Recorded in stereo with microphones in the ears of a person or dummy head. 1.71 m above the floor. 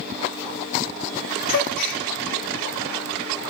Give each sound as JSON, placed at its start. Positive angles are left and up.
{"t": 1.5, "sound": "a gasp", "side_deg": 60, "distance_m": 1.5}